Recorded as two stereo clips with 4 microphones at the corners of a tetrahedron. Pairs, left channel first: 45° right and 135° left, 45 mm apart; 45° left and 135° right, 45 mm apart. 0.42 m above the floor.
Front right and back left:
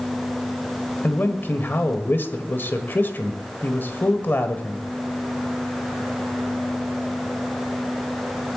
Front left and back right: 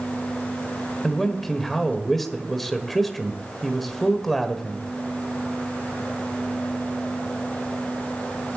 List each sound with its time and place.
1.0 s a man speaking: 40° right, 1.6 m